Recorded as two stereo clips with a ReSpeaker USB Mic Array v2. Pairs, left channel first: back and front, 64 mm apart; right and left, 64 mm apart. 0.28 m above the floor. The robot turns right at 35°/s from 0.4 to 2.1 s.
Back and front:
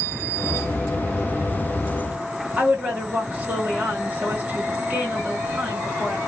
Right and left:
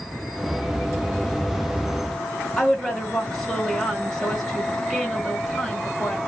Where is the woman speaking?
20° right, 1.3 m.